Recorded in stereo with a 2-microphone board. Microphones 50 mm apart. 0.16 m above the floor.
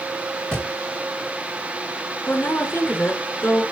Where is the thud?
15° left (ahead or behind), 2 m.